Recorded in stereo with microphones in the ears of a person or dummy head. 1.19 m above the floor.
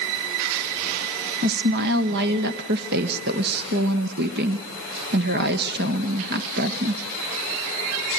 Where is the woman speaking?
60° right (ahead or behind), 0.9 m.